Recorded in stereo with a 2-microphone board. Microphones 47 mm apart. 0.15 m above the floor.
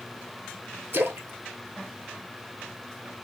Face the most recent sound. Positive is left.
turn(degrees=-50)  # may be behind; listen again after turning